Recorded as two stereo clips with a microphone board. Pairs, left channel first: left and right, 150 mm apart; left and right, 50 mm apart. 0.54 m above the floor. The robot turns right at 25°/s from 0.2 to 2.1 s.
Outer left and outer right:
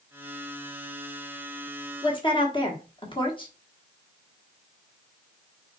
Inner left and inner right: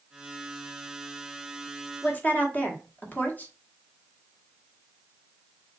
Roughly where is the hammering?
No hammering in this recording.